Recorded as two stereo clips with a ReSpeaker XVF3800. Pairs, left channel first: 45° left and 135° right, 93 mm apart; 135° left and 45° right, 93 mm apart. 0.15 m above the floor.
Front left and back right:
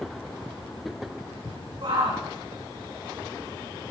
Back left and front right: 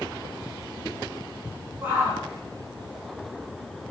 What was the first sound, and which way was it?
A shout, 110° right.